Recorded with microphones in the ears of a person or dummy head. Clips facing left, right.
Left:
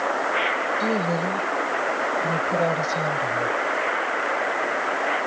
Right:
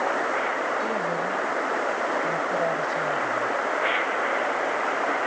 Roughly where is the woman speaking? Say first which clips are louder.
Left 3 dB; left.